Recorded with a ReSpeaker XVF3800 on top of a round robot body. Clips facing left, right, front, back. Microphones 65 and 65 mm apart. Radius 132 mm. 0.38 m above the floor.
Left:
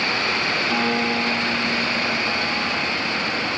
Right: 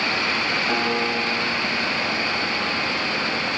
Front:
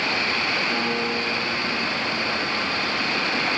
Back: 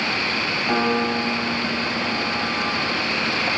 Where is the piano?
155° right, 3.5 m.